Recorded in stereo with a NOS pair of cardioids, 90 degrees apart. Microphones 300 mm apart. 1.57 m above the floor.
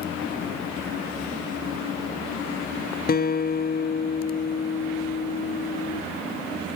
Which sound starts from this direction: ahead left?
A guitar, at 3.1 s.